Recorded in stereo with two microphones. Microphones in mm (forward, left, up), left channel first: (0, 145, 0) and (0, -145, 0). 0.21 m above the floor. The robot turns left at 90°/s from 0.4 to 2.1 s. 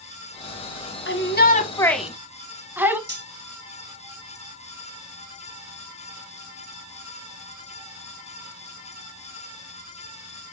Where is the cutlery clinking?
35° right (ahead or behind), 1.6 m.